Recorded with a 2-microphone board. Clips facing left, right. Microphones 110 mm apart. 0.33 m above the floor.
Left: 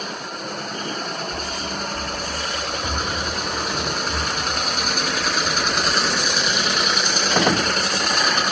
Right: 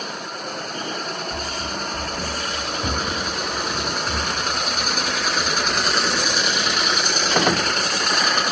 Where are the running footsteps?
50° right (ahead or behind), 1.7 m; by 8.4 s 90° right, 9.5 m.